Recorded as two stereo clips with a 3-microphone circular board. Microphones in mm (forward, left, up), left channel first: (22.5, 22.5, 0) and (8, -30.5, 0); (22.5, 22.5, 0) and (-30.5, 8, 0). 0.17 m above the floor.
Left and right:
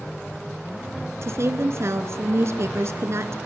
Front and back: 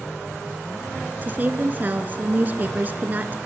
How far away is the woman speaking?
About 1.9 m.